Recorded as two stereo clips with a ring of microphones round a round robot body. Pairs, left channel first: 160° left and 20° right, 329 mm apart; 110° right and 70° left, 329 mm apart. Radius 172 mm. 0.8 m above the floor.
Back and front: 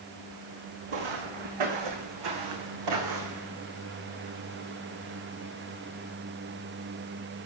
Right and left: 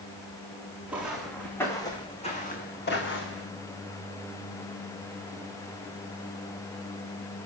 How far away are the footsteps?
About 4.5 m.